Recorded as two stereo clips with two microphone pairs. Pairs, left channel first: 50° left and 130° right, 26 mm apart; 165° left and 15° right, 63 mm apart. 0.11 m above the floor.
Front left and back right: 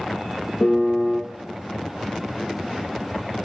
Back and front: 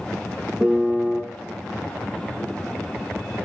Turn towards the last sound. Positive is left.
turn(degrees=50)